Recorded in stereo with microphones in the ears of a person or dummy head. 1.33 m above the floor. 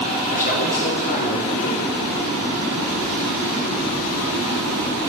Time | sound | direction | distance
0.3 | a man speaking | 40° left (ahead or behind) | 1.8 m